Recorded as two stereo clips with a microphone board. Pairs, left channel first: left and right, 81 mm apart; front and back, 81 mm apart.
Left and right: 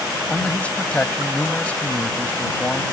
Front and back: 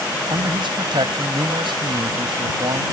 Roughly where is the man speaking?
Behind.